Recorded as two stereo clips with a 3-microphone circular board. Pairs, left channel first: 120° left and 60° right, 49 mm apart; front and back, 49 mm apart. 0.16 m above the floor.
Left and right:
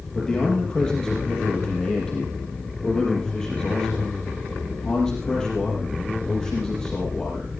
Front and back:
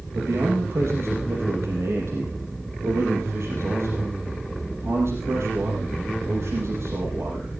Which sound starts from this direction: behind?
A man speaking, at 0.1 s.